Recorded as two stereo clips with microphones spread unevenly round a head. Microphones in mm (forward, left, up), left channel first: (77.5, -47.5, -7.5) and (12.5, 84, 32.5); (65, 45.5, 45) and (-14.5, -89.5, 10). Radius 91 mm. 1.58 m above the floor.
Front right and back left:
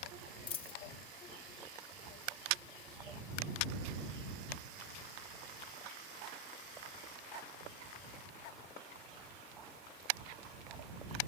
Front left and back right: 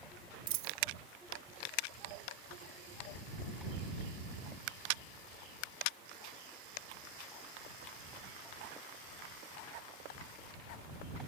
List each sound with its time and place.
0.5 s a dropped coin: 125° right